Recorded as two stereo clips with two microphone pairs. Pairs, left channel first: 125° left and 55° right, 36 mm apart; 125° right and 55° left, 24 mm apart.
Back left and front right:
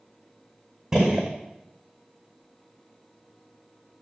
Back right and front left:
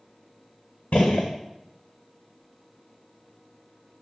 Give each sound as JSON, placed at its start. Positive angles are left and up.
{"t": 0.9, "sound": "a gunshot", "azimuth_deg": -125, "distance_m": 1.9}